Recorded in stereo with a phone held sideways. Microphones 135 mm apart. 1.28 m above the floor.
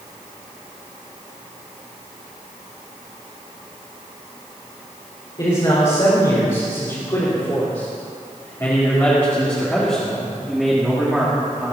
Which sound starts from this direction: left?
A man speaking, at 5.4 s.